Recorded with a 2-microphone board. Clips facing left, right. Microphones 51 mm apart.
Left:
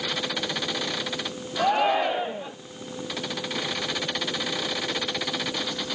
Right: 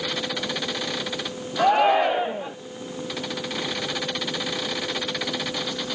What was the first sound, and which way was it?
A shout, 15° right (ahead or behind).